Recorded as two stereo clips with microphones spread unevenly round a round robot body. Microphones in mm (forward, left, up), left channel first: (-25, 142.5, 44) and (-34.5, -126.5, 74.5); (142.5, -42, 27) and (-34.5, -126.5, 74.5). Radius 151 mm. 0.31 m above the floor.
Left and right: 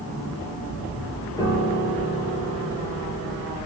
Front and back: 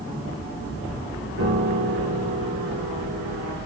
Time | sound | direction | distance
1.4 | a piano | 165° left | 4.5 m